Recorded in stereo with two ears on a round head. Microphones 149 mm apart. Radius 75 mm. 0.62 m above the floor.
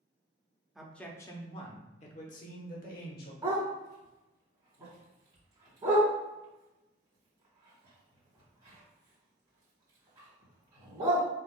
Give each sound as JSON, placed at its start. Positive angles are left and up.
{"t": 0.8, "sound": "a man speaking", "side_deg": -5, "distance_m": 0.7}
{"t": 3.4, "sound": "a dog barking", "side_deg": -25, "distance_m": 1.8}